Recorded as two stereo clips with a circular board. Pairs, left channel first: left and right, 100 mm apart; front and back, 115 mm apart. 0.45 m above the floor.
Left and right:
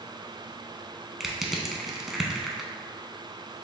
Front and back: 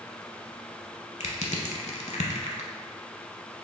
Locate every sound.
1.2 s crushing: 5° right, 0.6 m